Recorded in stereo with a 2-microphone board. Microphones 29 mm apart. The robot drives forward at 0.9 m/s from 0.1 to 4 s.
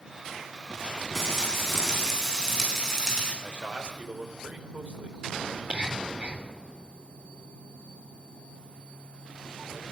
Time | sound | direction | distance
1.1 | frying | 20° left (ahead or behind) | 8.5 m
3.4 | a man speaking | 70° right (ahead or behind) | 4 m
5.5 | whispering | 75° right (ahead or behind) | 3 m